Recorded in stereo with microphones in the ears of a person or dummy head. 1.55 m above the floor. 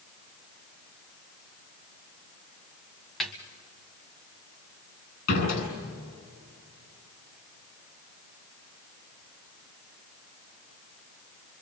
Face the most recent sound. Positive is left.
turn(degrees=50)  # may be behind; listen again after turning